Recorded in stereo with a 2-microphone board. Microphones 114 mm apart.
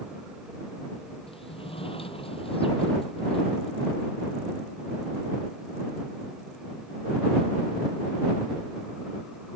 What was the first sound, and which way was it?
A sliding door, 55° left (ahead or behind).